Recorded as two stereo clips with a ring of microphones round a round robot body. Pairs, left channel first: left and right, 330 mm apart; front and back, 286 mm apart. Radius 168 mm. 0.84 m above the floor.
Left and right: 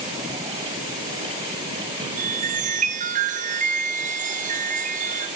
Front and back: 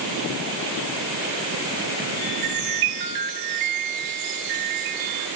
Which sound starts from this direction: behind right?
A chime, at 2.2 s.